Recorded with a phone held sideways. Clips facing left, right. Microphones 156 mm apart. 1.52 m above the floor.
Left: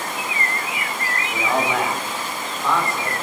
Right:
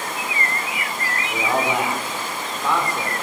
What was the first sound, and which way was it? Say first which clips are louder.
A man speaking: even; 15° right (ahead or behind).